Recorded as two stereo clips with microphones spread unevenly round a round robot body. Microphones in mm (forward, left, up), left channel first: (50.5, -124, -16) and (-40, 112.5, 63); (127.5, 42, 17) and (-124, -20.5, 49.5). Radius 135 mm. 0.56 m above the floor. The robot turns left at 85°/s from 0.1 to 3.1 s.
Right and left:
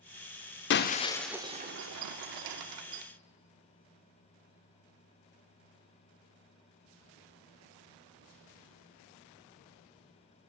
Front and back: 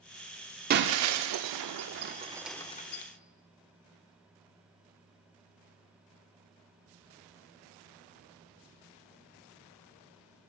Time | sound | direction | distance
0.7 | breaking glass | 105° right | 0.5 m